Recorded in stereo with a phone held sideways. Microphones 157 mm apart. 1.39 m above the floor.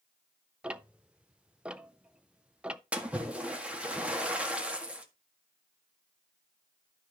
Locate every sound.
0.6 s ticking: 5° right (ahead or behind), 0.5 m
2.9 s a splash: 10° right (ahead or behind), 1.6 m